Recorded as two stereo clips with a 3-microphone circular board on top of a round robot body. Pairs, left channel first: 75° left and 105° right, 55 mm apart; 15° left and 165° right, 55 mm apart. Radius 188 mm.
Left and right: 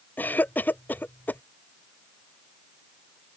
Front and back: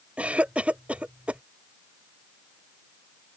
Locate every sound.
0.2 s a cough: 125° left